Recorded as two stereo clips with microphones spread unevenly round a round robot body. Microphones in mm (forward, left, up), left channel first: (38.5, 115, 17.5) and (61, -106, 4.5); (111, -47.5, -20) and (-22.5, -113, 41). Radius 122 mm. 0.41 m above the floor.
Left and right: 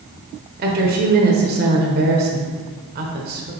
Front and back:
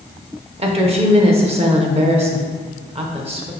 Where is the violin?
I don't hear a violin.